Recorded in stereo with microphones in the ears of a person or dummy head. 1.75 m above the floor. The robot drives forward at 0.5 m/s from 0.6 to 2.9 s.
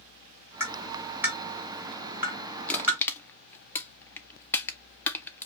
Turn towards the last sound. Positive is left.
turn(degrees=20)  # may be behind; listen again after turning